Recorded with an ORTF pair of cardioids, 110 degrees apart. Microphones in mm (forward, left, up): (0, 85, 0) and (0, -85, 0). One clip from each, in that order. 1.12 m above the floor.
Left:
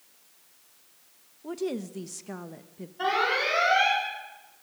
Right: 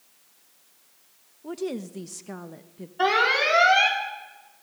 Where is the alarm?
55° right, 5 m.